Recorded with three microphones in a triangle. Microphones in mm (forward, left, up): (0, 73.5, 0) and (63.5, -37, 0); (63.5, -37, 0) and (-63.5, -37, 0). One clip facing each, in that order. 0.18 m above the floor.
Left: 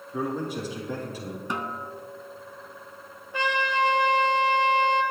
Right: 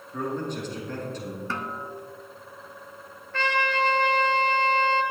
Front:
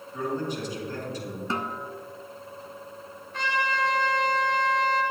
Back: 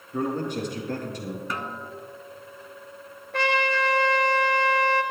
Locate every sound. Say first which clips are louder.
0.1 s a man speaking: left 1 dB, back 3 dB; 160° right, 4.5 m
1.5 s a snare drum: left 3 dB, front 2 dB; 50° left, 0.8 m
3.3 s a trumpet: even, back 4 dB; 165° right, 1.4 m